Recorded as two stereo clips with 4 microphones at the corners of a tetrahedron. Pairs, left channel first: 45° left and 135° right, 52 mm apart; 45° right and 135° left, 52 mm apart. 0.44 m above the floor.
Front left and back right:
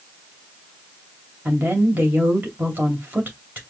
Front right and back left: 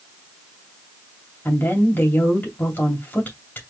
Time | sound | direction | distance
1.4 | a woman speaking | 85° right | 2.5 m